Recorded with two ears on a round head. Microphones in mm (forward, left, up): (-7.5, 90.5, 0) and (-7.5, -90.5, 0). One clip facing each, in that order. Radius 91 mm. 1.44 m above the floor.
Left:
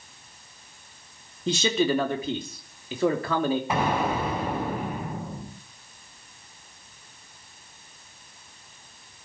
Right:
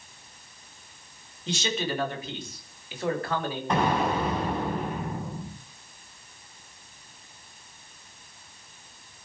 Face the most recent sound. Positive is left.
turn(degrees=5)  # may be behind; listen again after turning